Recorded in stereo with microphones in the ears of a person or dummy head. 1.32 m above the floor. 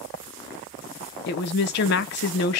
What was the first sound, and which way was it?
A woman speaking, 60° left (ahead or behind).